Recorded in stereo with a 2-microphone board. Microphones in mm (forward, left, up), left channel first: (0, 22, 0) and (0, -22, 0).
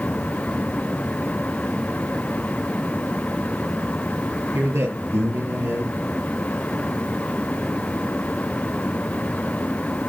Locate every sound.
4.5 s a man speaking: 75° right (ahead or behind), 6.5 m